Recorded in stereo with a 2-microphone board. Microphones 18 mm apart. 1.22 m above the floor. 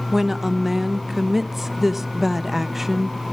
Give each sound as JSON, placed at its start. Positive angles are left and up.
{"t": 0.1, "sound": "a woman speaking", "side_deg": -15, "distance_m": 0.9}